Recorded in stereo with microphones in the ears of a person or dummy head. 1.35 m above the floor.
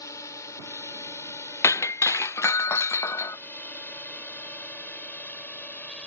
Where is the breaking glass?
15° left (ahead or behind).